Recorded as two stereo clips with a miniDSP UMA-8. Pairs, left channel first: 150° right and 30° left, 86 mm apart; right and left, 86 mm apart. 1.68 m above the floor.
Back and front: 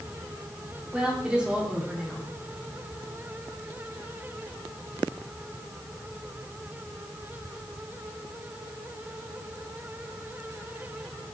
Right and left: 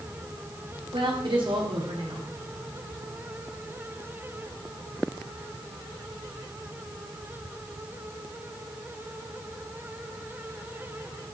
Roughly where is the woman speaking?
Left.